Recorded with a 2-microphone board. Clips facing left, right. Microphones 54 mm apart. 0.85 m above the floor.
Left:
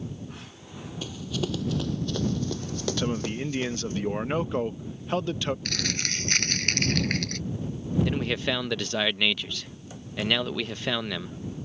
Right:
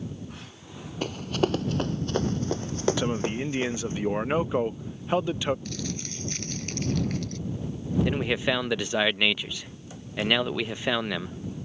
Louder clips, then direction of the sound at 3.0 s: Right 1 dB; 10° right (ahead or behind).